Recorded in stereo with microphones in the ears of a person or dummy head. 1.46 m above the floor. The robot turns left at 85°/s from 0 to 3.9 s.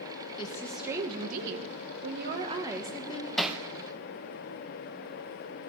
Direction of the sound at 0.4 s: 30° left.